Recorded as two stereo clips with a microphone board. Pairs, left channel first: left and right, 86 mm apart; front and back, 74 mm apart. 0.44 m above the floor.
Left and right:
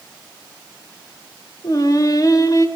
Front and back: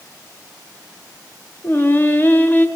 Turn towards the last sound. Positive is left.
turn(degrees=55)